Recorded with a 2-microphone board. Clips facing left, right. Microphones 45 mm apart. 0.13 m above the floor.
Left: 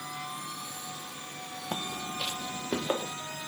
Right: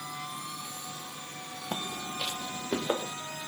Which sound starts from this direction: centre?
Footsteps, at 1.7 s.